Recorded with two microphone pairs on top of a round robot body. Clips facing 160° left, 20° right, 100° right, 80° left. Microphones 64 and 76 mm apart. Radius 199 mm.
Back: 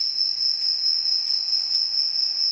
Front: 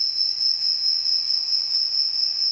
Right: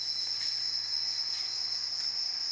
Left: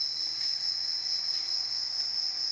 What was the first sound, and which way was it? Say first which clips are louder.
An insect: front 1 dB, even; 100° left.